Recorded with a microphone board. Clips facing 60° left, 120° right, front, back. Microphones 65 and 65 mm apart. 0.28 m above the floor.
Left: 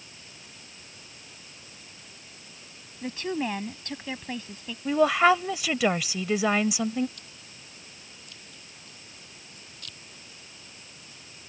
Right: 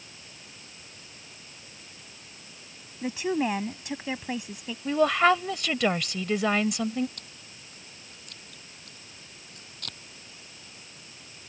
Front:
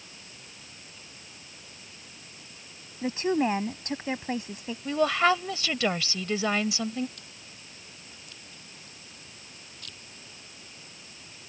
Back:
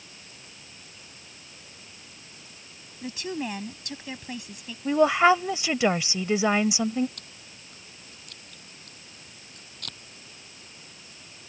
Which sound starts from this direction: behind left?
A woman speaking, at 4.8 s.